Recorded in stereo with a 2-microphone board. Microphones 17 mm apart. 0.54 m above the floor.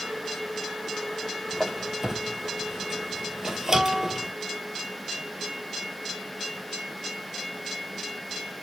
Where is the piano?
10° right (ahead or behind), 2.0 m.